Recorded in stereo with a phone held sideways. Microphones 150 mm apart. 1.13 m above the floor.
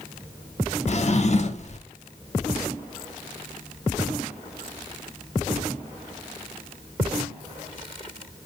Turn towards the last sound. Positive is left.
turn(degrees=50)  # may be behind; listen again after turning